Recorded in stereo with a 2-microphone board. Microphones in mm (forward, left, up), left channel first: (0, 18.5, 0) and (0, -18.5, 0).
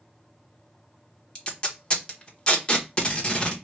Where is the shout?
No shout in this recording.